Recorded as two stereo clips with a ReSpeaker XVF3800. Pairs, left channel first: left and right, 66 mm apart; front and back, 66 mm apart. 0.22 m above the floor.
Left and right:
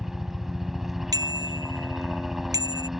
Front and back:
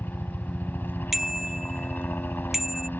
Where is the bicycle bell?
95° right.